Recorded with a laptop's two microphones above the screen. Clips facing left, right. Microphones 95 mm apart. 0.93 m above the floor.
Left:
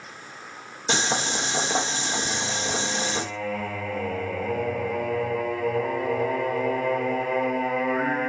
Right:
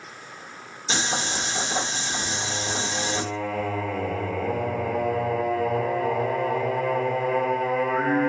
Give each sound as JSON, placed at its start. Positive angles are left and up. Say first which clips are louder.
{"t": 0.9, "sound": "boiling", "louder": "left 2 dB", "side_deg": 65, "distance_m": 0.7}
{"t": 2.2, "sound": "singing", "louder": "left 1 dB", "side_deg": -25, "distance_m": 1.1}